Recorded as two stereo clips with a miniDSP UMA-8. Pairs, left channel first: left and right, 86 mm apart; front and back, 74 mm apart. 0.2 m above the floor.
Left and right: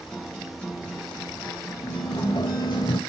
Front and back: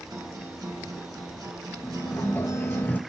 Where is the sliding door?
65° left, 0.6 m.